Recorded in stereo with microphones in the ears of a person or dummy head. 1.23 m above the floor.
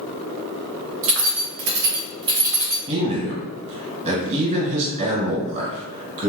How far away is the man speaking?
About 1.4 m.